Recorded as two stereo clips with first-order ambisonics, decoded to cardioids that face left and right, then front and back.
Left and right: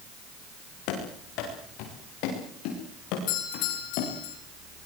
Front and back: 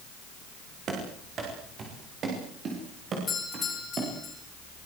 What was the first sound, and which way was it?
Running footsteps, 115° left.